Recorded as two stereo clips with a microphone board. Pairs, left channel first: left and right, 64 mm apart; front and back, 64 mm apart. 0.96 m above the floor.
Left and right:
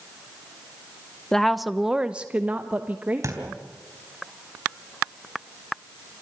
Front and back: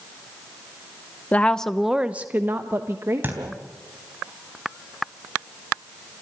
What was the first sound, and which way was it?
A woman speaking, 20° left.